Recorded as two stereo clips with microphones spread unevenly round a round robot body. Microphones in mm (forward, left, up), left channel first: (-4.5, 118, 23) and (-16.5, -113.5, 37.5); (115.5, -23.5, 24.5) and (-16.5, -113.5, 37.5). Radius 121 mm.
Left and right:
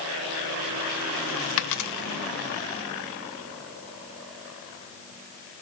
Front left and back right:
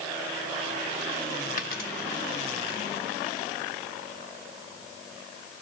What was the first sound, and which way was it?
A dropped coin, 85° left.